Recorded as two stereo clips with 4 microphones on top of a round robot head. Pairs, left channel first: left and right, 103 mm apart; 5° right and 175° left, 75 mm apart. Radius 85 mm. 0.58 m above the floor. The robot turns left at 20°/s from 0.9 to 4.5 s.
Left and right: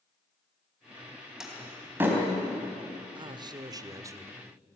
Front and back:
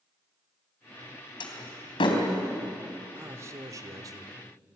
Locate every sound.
1.4 s a door slam: 5° right, 3.5 m; by 2.2 s 20° right, 3.5 m
3.1 s a man speaking: 130° right, 1.6 m; by 4.4 s 155° right, 1.6 m